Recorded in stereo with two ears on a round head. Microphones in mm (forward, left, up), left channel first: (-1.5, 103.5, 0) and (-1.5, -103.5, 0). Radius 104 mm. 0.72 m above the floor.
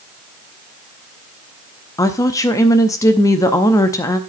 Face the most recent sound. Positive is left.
turn(degrees=15)  # may be behind; listen again after turning